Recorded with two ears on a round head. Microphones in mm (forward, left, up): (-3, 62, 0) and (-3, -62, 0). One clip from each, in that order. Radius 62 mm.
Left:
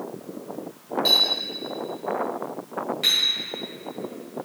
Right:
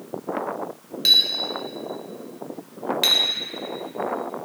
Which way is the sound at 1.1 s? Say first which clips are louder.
Right 3 dB; 55° right (ahead or behind).